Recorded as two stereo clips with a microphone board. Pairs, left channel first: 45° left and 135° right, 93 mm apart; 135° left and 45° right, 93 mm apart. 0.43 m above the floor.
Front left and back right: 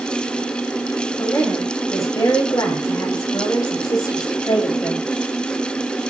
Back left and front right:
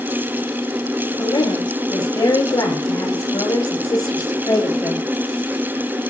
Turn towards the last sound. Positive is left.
turn(degrees=85)